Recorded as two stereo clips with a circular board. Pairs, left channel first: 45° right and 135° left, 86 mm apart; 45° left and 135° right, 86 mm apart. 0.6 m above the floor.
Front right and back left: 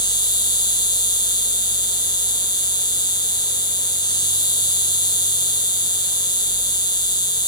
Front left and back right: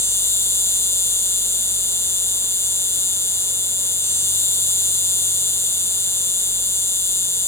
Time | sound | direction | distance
0.0 | an insect | 15° right | 1.3 m